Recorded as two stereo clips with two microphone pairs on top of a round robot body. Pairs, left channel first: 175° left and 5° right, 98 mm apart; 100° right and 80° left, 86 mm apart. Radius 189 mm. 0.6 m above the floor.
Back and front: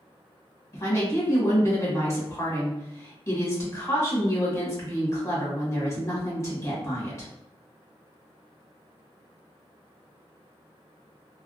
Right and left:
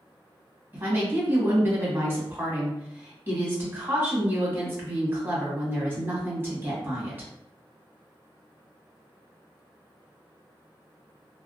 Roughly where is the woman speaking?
Behind left.